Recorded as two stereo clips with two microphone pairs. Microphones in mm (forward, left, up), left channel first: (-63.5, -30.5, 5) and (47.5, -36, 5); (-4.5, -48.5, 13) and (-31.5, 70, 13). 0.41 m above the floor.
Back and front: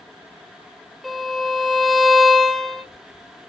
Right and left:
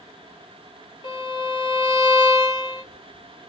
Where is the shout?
No shout in this recording.